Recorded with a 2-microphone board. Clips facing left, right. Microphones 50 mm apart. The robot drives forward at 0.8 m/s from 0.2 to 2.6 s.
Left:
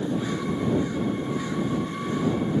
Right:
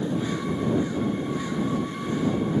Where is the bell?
I don't hear a bell.